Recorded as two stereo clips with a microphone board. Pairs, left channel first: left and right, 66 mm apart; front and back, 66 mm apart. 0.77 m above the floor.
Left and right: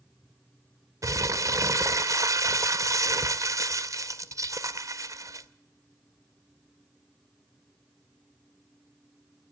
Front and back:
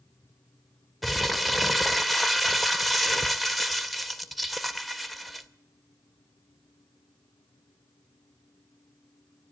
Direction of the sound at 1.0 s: 90° right.